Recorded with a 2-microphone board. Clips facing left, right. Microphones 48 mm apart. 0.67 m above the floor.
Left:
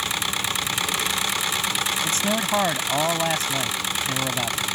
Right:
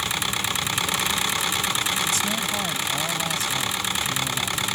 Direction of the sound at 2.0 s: 40° left (ahead or behind).